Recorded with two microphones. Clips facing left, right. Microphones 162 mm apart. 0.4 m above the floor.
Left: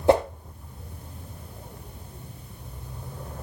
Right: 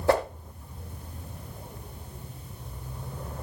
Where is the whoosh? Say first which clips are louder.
Left 4 dB; 20° left (ahead or behind), 0.6 m.